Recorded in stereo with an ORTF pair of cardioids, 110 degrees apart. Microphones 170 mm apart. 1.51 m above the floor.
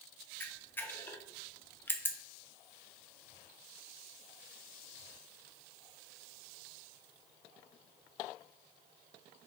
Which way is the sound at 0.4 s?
10° left.